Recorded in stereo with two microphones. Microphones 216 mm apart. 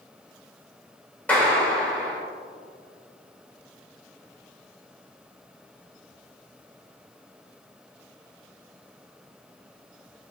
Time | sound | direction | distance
1.3 | a clap | 5° left (ahead or behind) | 3.5 m